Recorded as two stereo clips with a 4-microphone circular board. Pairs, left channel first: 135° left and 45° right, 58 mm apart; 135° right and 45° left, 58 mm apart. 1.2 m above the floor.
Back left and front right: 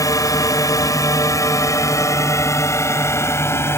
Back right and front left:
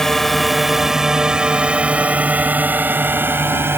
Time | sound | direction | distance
0.0 | a drone | 140° left | ?